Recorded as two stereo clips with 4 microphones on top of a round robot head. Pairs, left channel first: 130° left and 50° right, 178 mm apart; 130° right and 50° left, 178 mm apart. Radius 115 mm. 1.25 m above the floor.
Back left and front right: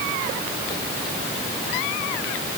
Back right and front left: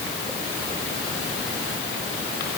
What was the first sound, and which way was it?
Only background noise.